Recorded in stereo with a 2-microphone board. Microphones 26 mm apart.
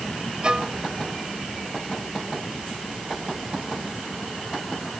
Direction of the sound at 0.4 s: 30° right (ahead or behind).